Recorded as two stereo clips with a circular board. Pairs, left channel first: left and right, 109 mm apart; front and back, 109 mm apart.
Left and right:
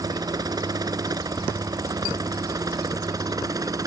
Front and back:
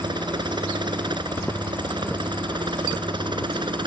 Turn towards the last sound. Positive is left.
turn(degrees=-140)